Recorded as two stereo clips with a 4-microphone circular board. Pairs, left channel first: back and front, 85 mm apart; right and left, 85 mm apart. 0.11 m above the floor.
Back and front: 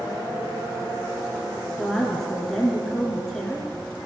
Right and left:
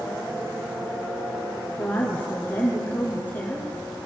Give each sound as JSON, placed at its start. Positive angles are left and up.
{"t": 1.8, "sound": "a woman speaking", "azimuth_deg": -105, "distance_m": 1.8}